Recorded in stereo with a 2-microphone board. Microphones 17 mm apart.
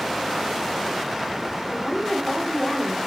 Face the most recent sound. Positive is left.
turn(degrees=15)  # may be behind; listen again after turning